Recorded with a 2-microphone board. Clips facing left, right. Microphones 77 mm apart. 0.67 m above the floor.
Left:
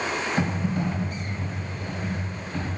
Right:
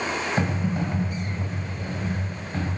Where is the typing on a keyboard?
25° right (ahead or behind), 3.5 m.